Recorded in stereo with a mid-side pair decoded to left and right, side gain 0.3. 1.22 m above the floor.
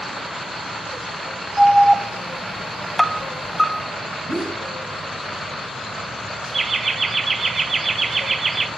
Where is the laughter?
55° right, 0.5 m.